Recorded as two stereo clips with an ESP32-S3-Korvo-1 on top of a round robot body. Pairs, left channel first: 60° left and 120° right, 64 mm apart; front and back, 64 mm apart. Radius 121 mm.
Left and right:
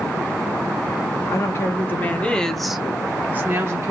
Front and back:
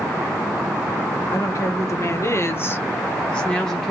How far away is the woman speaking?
About 1.1 m.